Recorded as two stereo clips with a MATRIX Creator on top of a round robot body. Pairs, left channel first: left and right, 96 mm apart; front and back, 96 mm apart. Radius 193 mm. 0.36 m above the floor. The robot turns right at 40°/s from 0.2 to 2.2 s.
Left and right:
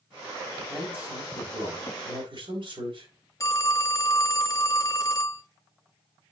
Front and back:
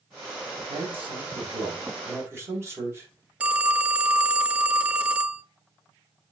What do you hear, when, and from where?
0.7 s a man speaking: straight behind, 3.5 m; by 3.1 s 120° right, 3.5 m
3.4 s a phone ringing: 110° left, 0.8 m